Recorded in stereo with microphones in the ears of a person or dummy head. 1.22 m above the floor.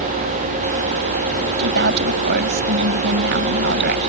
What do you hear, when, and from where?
1.6 s a woman speaking: 55° right (ahead or behind)